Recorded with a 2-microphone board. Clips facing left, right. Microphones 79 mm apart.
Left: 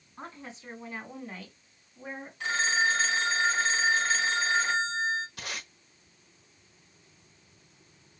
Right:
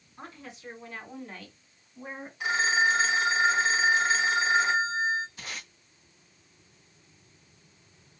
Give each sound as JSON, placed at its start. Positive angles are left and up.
{"t": 0.2, "sound": "a woman speaking", "side_deg": 30, "distance_m": 2.0}
{"t": 2.4, "sound": "a phone ringing", "side_deg": -15, "distance_m": 0.7}
{"t": 5.4, "sound": "tape being pulled", "side_deg": 75, "distance_m": 1.5}